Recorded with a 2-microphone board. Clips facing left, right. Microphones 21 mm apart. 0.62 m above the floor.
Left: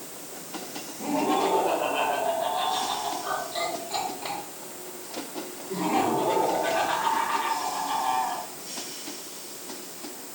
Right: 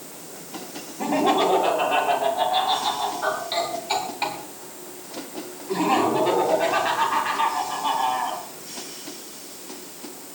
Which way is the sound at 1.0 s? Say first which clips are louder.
Right 5 dB; 75° right (ahead or behind).